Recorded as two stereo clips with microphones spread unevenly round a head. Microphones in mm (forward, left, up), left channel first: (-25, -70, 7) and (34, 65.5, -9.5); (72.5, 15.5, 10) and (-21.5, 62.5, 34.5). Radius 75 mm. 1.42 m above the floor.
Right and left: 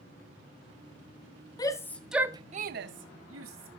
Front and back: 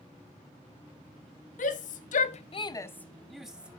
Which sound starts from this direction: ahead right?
A shout, at 1.6 s.